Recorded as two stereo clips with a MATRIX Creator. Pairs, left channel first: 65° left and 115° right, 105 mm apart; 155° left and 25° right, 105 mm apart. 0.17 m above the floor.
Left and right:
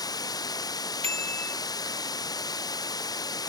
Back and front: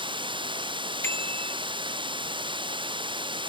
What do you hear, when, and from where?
0.0 s running water: 15° left
1.0 s a bicycle bell: 135° right